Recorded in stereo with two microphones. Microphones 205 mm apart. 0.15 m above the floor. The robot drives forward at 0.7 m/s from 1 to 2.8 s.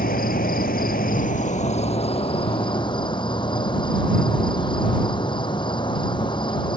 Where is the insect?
45° left (ahead or behind); by 6.8 s 25° left (ahead or behind).